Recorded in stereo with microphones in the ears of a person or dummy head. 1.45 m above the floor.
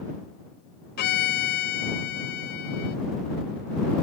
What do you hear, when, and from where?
1.0 s a violin: 45° left (ahead or behind)